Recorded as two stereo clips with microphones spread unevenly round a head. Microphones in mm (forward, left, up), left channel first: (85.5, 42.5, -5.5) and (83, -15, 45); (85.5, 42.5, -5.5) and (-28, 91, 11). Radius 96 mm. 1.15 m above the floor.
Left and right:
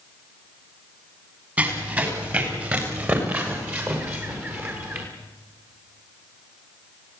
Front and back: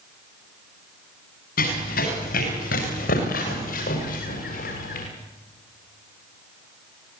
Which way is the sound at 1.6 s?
40° right.